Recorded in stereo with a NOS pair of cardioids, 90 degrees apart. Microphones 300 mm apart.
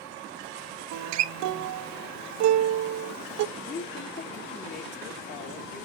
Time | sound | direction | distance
0.9 | a guitar | 65° right | 0.6 m
3.6 | a woman speaking | 45° left | 3 m